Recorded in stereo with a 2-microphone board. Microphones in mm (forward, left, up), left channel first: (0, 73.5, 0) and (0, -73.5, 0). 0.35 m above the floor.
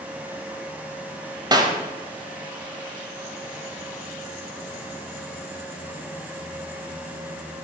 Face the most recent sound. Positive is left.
turn(degrees=-25)  # may be behind; listen again after turning